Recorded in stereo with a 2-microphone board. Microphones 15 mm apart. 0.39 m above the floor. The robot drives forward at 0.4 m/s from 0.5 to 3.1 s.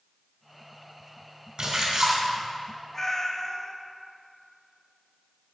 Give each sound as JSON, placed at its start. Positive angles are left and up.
{"t": 1.6, "sound": "a splash", "side_deg": -50, "distance_m": 3.0}
{"t": 2.9, "sound": "a cat meowing", "side_deg": 20, "distance_m": 0.9}